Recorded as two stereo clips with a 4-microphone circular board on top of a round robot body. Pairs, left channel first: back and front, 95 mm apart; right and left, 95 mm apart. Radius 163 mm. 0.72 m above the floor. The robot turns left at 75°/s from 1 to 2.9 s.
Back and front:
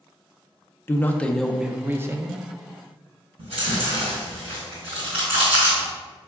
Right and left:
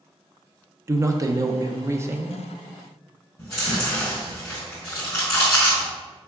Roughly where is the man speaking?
Behind left.